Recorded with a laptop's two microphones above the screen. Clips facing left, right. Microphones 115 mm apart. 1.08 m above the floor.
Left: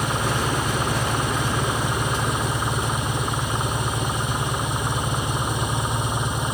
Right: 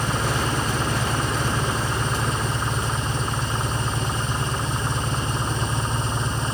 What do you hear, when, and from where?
0.0 s an engine running: 15° left (ahead or behind)